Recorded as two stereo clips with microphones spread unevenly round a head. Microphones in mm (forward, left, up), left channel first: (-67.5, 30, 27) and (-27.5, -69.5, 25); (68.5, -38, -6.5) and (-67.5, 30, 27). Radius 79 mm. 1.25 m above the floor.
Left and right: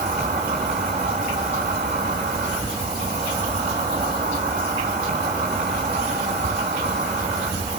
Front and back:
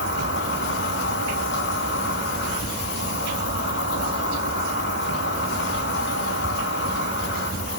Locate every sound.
0.0 s an insect: 15° right, 6 m